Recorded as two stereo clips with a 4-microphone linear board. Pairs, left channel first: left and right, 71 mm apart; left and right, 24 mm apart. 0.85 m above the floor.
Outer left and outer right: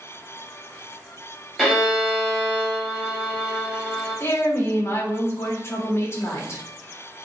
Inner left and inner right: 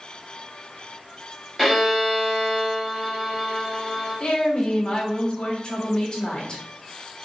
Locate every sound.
1.6 s a violin: 5° right (ahead or behind), 2 m
4.2 s a woman speaking: 35° left (ahead or behind), 1.1 m